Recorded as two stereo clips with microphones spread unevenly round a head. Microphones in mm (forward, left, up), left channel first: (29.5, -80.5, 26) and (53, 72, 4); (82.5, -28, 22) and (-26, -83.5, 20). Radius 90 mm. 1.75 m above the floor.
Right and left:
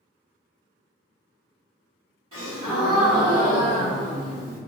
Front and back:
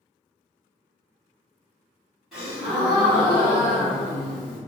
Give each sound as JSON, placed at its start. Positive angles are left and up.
{"t": 2.3, "sound": "a gasp", "azimuth_deg": 115, "distance_m": 1.7}